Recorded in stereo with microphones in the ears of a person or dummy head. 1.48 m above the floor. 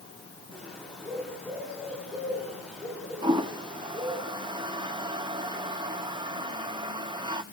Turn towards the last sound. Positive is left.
turn(degrees=-20)  # may be behind; listen again after turning